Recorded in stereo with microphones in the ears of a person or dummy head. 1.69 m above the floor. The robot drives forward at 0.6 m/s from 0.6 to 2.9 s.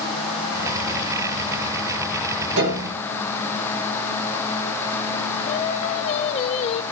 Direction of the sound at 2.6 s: 65° right (ahead or behind).